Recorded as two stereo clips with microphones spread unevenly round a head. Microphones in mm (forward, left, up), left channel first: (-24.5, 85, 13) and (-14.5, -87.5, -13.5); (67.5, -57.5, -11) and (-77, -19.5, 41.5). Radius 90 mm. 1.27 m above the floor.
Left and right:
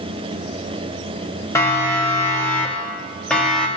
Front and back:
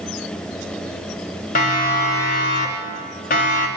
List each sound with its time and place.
1.6 s a siren: 15° left, 5 m; by 3.7 s 5° left, 3.5 m